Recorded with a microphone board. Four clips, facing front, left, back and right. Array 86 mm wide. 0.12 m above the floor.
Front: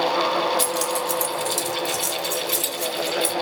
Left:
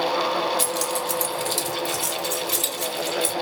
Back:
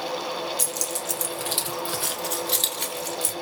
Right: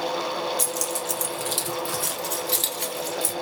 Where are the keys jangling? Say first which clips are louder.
Left 4 dB, front 8 dB; 30° left, 1.2 m; by 3.3 s 155° right, 1.9 m.